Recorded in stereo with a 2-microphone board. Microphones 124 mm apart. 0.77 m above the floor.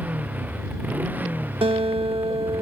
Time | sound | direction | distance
0.0 | a motorcycle | 15° right (ahead or behind) | ?
1.6 | a guitar | 45° right (ahead or behind) | ?